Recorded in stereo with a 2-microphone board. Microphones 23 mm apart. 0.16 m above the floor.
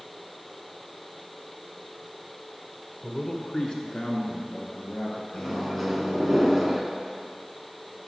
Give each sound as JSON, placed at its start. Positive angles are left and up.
{"t": 3.0, "sound": "a man speaking", "side_deg": 25, "distance_m": 1.3}
{"t": 5.3, "sound": "a microwave", "side_deg": 5, "distance_m": 1.2}